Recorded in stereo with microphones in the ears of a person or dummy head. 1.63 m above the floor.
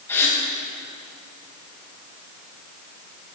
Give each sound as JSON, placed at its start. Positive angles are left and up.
{"t": 0.1, "sound": "a gasp", "side_deg": 15, "distance_m": 2.0}